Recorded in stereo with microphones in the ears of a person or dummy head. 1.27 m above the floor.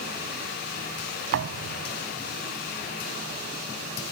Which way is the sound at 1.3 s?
65° right (ahead or behind).